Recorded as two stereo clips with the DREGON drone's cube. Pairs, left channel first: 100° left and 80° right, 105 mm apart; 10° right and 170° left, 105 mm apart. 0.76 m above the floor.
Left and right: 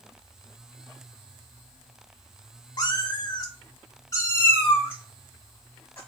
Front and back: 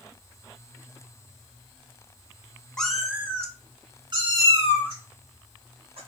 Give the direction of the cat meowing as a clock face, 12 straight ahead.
10 o'clock.